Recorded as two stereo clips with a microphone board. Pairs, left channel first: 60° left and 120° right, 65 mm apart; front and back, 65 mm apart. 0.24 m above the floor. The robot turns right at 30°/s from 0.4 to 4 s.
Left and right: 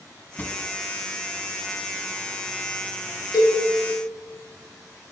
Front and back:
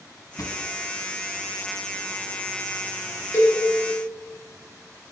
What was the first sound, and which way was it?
A drawer, straight ahead.